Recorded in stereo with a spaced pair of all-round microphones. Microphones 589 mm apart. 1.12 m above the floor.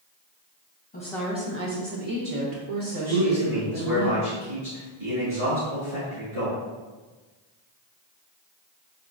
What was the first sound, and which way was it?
A woman speaking, 15° left (ahead or behind).